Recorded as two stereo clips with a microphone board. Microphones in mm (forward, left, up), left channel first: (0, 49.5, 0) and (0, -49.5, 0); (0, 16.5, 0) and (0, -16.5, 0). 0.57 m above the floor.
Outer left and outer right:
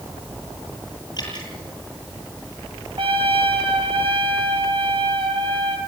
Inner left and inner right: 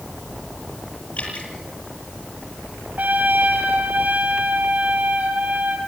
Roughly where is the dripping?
Left.